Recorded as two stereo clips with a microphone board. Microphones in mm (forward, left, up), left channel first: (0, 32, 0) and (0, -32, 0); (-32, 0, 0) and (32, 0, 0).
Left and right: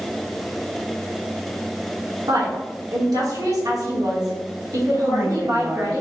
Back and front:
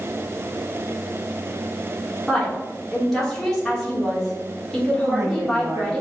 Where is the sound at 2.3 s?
95° right, 2.5 m.